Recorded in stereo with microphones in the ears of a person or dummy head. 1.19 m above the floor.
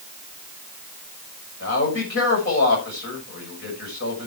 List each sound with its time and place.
1.6 s a man speaking: 55° left (ahead or behind), 6.5 m